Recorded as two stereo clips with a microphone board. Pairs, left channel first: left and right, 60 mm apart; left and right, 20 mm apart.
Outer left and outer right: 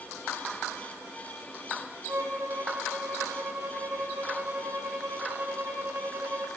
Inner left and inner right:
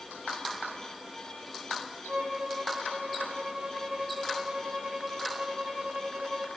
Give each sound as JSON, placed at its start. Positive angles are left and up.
{"t": 2.1, "sound": "a violin", "side_deg": -50, "distance_m": 5.5}